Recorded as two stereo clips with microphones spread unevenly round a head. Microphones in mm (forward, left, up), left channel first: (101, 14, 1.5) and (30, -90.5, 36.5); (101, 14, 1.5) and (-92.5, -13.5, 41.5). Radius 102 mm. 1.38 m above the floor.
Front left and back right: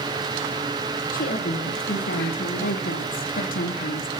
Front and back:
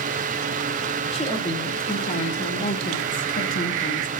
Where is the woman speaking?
70° left, 3 m; by 4.1 s 55° left, 1.6 m.